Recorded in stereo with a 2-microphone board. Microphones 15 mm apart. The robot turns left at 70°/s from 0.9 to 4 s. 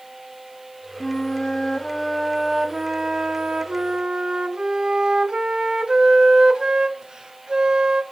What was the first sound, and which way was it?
A flute, 95° left.